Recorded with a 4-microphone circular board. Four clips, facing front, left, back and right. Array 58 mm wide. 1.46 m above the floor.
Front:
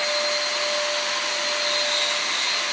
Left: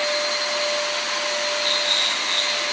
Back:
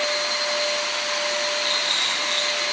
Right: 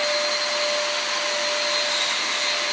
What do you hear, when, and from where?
1.6 s a rattle: 130° left, 8.5 m